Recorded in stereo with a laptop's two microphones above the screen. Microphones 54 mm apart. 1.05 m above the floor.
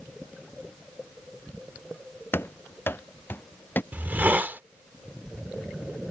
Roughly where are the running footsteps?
Left.